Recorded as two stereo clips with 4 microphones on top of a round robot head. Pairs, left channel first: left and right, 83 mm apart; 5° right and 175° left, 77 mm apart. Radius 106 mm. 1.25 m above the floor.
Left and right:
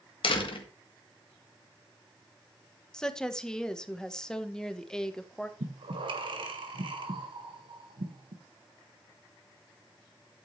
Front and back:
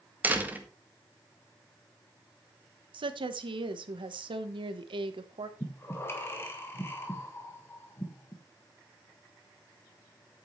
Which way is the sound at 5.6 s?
65° right.